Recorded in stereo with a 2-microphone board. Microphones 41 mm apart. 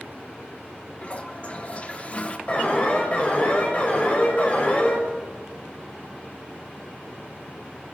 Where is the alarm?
35° left (ahead or behind), 5 m.